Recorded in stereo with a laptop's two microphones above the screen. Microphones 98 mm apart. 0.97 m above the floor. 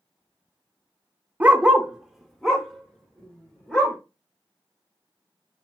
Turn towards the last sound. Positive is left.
turn(degrees=10)  # may be behind; listen again after turning